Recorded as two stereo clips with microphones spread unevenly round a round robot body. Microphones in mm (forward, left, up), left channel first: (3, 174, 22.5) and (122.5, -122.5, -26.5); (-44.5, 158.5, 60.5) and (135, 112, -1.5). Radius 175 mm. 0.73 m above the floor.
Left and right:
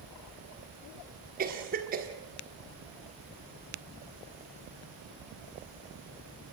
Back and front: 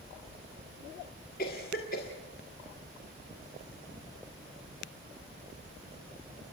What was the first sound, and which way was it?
A cough, 130° right.